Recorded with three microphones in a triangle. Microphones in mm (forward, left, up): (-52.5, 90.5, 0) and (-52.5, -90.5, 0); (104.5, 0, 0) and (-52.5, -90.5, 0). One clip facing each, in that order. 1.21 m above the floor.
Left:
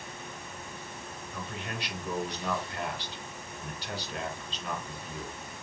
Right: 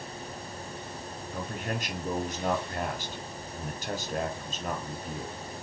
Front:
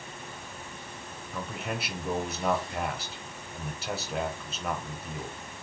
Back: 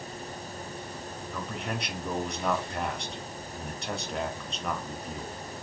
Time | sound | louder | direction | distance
1.3 | a man speaking | right 5 dB, front 1 dB | 55° right | 0.8 m